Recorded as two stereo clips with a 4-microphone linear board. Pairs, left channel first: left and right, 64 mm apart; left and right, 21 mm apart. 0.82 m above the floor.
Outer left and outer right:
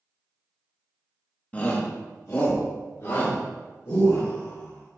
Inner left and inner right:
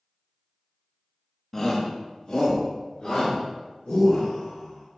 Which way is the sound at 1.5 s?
25° left (ahead or behind).